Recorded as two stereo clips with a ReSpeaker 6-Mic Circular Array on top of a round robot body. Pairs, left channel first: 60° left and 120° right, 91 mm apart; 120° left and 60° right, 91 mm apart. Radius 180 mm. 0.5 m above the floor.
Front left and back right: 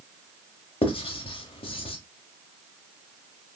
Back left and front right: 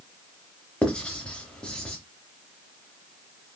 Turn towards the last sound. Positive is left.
turn(degrees=40)